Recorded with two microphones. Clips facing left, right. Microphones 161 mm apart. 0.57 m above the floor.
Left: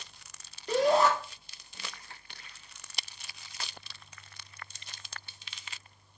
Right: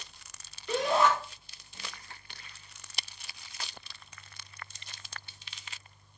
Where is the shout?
35° left (ahead or behind), 1.2 m.